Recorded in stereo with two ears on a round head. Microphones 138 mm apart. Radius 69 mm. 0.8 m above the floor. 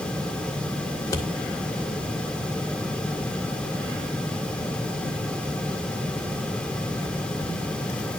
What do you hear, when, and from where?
1.0 s scissors: 20° left (ahead or behind), 1.9 m